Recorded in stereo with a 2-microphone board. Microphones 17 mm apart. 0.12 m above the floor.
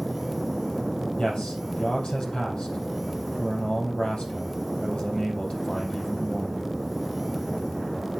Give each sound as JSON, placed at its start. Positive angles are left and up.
{"t": 1.2, "sound": "a man speaking", "side_deg": 65, "distance_m": 4.0}